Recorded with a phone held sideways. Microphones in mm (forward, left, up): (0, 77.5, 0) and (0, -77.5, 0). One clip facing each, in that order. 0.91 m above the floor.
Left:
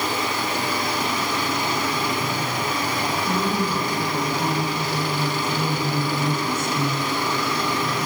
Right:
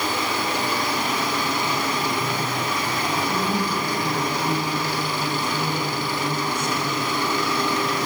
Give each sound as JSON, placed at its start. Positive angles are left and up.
{"t": 3.3, "sound": "a woman speaking", "side_deg": 60, "distance_m": 9.5}